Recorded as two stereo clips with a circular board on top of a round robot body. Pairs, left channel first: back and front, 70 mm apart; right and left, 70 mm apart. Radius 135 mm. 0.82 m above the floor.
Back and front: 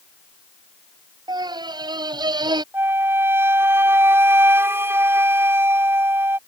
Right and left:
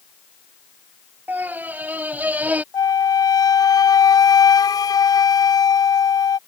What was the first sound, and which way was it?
A scream, 25° left.